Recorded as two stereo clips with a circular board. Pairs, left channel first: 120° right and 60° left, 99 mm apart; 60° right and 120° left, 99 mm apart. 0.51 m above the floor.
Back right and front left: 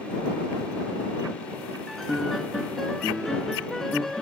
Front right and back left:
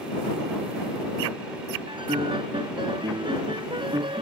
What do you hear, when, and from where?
1.9 s a piano: 155° left